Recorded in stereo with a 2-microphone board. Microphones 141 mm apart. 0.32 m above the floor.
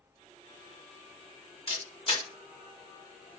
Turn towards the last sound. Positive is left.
turn(degrees=45)  # may be behind; listen again after turning